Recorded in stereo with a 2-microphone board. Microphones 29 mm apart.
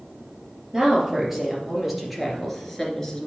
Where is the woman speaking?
15° right (ahead or behind), 3.5 m; by 3.3 s 20° left (ahead or behind), 2.5 m.